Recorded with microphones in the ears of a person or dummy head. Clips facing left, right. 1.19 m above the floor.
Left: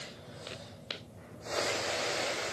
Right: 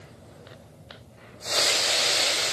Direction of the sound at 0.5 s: 40° left (ahead or behind).